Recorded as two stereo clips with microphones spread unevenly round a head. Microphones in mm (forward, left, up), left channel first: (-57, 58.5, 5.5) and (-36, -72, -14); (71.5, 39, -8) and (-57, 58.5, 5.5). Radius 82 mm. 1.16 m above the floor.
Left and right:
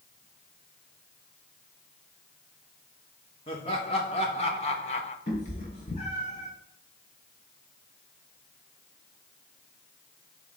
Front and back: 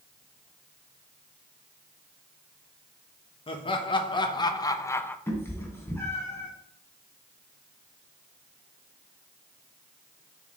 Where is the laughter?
35° left, 1.5 m; by 5.2 s 60° left, 0.6 m.